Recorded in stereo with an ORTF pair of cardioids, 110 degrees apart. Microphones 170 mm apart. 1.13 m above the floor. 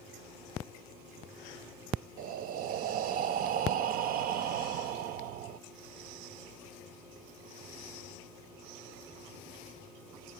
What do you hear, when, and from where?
2.2 s breathing: 65° right, 0.7 m